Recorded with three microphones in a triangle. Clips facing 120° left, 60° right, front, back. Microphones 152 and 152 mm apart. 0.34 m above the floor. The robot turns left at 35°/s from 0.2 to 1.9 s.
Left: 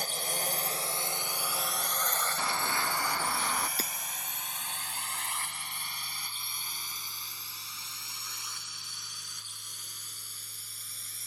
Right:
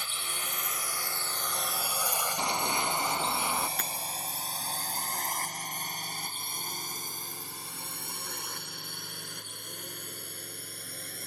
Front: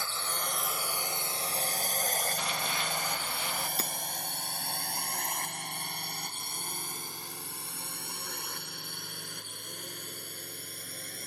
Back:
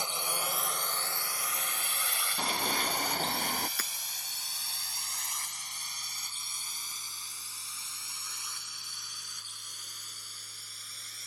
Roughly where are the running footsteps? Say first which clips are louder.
Right 3 dB, back 2 dB; behind right.